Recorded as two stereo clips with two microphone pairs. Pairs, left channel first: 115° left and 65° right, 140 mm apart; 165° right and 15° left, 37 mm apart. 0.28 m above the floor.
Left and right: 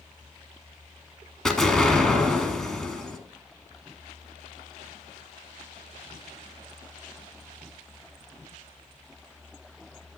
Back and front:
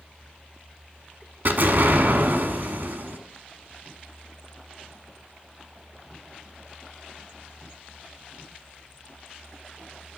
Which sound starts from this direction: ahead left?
An explosion, at 1.4 s.